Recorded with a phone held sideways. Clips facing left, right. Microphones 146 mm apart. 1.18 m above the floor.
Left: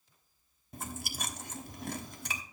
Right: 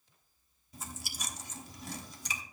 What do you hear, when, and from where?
0.7 s chewing: 60° left (ahead or behind), 1.1 m